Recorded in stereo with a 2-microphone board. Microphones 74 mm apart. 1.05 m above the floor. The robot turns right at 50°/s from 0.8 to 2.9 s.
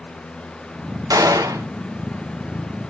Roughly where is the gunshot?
Right.